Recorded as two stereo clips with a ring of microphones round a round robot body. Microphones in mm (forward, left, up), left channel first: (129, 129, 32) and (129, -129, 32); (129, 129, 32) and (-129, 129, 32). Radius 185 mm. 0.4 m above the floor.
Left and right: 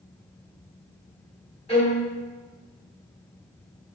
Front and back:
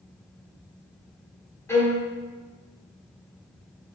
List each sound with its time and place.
1.7 s a violin: 65° left, 1.4 m